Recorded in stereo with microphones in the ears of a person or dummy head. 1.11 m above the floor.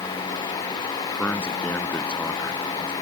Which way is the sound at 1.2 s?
10° left (ahead or behind).